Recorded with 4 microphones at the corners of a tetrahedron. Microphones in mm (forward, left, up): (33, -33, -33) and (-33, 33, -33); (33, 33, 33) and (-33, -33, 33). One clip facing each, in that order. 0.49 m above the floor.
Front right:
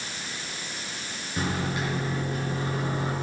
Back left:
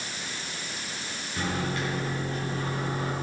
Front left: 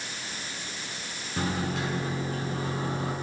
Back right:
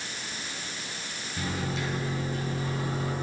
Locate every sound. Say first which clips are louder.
1.4 s a microwave: front right 1 dB, front left 3 dB; 25° left, 6.5 m